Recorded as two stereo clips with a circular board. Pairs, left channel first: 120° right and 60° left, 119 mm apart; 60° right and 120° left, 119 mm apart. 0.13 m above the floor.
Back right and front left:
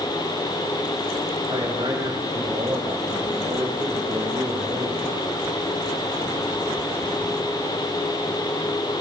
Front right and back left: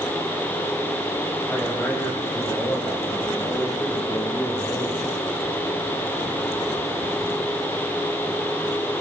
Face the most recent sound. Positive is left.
turn(degrees=5)